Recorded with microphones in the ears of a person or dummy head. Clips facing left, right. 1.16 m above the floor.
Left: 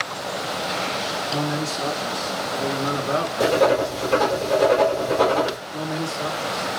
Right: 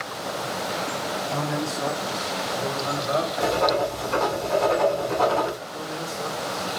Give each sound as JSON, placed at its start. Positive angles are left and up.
{"t": 1.3, "sound": "a man speaking", "side_deg": 70, "distance_m": 4.0}
{"t": 3.4, "sound": "writing", "side_deg": 80, "distance_m": 3.5}
{"t": 5.7, "sound": "a man speaking", "side_deg": 65, "distance_m": 2.5}